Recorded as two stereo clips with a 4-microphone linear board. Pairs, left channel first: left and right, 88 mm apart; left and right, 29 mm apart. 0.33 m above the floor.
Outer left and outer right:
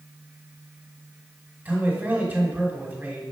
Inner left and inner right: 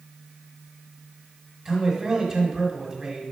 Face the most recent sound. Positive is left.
turn(degrees=-20)  # may be behind; listen again after turning